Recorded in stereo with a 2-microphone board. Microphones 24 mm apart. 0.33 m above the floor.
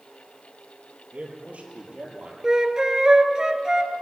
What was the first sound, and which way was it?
A man speaking, 80° right.